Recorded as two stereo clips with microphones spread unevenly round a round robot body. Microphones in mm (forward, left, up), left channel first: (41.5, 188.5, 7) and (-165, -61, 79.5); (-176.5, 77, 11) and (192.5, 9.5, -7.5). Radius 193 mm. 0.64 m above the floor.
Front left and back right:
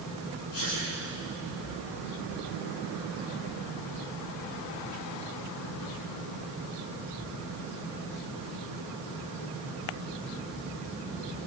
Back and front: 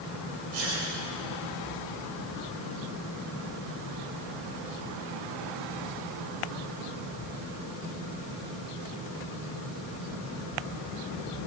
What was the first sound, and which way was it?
A sneeze, 5° left.